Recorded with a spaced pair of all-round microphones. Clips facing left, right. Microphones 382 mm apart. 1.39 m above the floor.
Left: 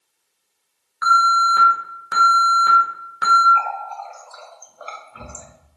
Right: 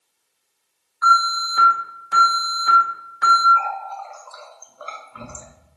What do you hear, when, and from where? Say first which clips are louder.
1.0 s an alarm: left 2 dB; 80° left, 1.1 m
3.5 s a running tap: even; 5° right (ahead or behind), 0.6 m